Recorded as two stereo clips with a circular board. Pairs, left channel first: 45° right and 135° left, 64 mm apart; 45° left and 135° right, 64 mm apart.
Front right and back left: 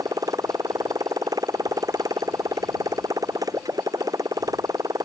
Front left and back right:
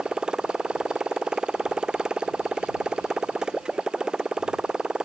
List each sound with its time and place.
0.0 s a motorcycle: 145° left